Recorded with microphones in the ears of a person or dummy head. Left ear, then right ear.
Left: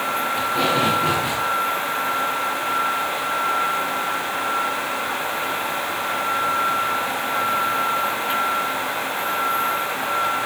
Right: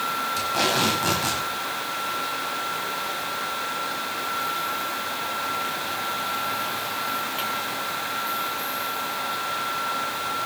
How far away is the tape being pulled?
About 4.5 m.